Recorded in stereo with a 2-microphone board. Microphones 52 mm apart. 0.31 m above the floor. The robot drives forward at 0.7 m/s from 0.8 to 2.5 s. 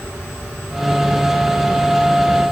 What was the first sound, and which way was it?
Only background noise.